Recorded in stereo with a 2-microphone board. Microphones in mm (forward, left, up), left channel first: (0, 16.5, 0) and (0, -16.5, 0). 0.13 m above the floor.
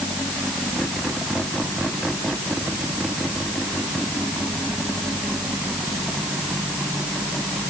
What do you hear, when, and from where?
Only background noise.